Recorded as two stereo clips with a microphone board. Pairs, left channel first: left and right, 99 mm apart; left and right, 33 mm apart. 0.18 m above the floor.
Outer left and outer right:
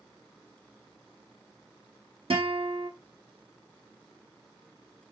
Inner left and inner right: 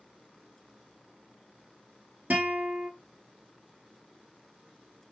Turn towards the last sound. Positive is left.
turn(degrees=-65)  # may be behind; listen again after turning